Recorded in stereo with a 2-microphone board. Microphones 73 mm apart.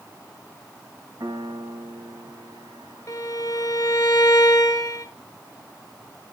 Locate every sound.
1.2 s a piano: 70° right (ahead or behind), 4.5 m
3.1 s a violin: 45° left (ahead or behind), 5 m